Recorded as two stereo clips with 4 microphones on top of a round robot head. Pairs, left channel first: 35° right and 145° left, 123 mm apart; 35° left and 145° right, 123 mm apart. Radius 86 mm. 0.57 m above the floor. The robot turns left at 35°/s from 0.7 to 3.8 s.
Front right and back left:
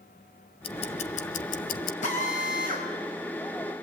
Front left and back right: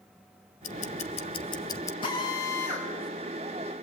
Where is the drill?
15° right, 6 m; by 2.9 s 45° right, 6 m.